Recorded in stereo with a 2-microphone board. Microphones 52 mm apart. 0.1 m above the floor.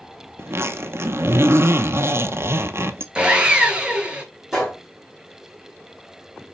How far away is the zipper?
About 0.8 m.